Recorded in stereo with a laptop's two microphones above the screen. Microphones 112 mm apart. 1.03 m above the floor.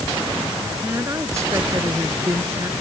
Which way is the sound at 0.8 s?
25° right (ahead or behind).